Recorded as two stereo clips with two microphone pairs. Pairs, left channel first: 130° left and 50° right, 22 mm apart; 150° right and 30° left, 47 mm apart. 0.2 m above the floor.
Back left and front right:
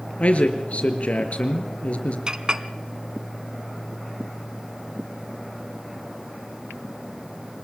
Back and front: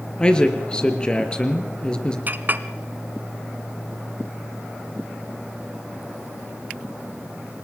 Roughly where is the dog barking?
I don't hear a dog barking.